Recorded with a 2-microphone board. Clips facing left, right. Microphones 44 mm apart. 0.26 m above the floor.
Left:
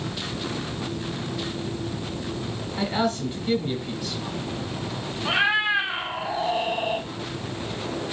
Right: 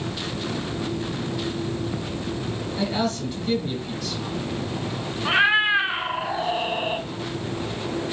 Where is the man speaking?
20° left (ahead or behind), 1.1 m.